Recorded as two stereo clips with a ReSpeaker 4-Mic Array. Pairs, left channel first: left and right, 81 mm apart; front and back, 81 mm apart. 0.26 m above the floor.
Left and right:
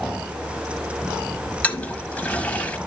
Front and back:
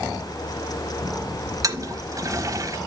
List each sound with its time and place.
1.6 s a toilet flushing: 155° left, 0.9 m